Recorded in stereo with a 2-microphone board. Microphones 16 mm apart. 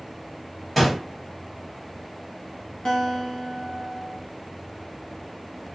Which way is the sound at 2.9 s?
60° left (ahead or behind).